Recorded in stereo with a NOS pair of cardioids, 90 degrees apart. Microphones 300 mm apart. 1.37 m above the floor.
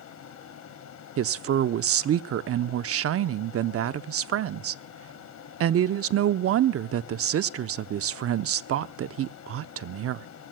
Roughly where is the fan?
Ahead left.